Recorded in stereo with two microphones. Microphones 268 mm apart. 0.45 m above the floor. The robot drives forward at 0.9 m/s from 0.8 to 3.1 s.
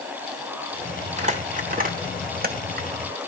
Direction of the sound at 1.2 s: 25° right (ahead or behind).